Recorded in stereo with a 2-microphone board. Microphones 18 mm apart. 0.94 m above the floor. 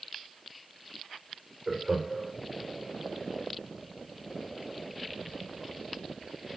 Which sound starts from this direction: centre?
Laughter, at 1.7 s.